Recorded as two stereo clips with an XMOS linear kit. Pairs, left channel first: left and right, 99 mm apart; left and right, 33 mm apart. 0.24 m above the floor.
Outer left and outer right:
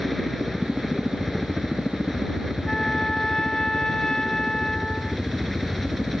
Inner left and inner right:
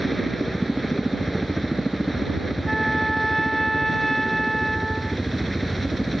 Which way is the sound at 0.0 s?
Centre (ahead or behind).